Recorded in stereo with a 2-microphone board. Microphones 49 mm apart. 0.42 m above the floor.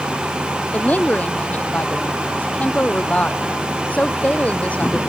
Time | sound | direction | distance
0.7 | a woman speaking | 30° left (ahead or behind) | ?